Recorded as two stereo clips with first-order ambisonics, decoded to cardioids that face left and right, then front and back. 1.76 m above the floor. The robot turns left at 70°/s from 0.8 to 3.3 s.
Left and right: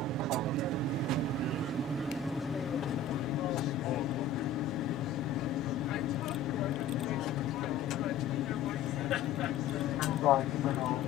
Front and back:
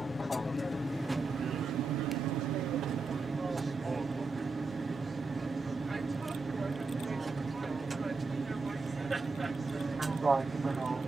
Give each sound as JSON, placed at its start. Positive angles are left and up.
{"t": 0.0, "sound": "an aircraft", "azimuth_deg": -80}